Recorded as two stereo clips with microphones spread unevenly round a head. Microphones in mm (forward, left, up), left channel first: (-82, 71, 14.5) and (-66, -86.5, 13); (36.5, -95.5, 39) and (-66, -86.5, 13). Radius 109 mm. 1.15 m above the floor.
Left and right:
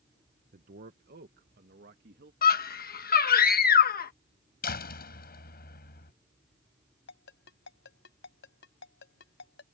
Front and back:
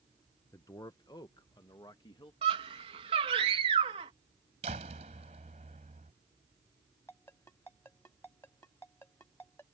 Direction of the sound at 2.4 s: 125° left.